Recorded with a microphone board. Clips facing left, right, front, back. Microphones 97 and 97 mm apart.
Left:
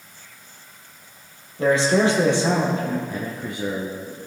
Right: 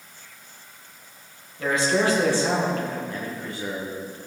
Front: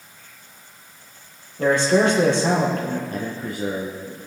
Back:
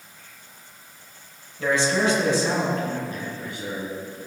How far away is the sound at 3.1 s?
About 1.7 m.